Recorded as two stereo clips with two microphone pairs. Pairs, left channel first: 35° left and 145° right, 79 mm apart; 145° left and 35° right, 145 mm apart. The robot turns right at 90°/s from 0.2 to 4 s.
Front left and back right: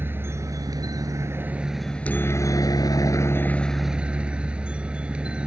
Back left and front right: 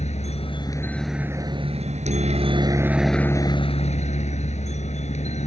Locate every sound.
0.0 s a helicopter: 160° left; by 5.5 s 140° left